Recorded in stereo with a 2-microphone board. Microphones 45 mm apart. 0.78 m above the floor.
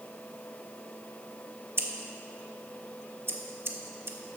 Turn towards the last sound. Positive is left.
turn(degrees=-55)  # may be behind; listen again after turning